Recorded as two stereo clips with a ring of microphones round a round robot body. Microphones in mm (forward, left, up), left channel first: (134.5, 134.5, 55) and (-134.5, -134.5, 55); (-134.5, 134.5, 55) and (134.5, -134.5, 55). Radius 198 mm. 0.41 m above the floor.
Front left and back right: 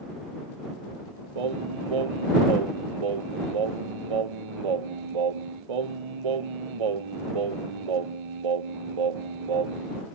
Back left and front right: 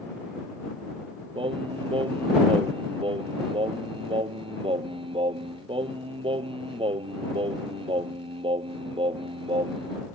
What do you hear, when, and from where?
1.4 s singing: 120° right